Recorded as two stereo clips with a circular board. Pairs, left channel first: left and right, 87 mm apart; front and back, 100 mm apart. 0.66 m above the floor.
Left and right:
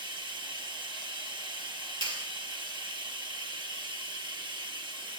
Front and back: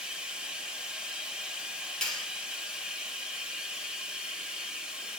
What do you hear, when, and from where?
0.0 s running water: 100° right, 0.8 m
2.0 s a clap: 85° right, 1.5 m